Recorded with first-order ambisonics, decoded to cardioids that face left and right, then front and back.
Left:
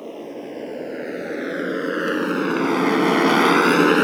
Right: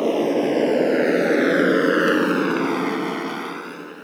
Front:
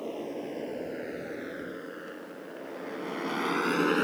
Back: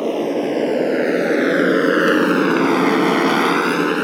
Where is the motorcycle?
140° right; by 4.0 s 110° left.